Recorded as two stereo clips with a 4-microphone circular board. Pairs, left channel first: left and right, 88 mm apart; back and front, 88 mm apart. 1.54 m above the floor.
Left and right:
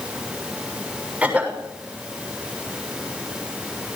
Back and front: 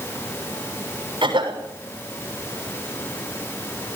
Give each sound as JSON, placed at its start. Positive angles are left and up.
{"t": 1.2, "sound": "a cough", "azimuth_deg": -15, "distance_m": 6.5}